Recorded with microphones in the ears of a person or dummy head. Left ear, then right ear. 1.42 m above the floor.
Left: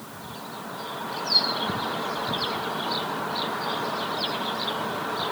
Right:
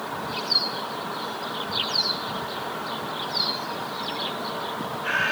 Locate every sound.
Only background noise.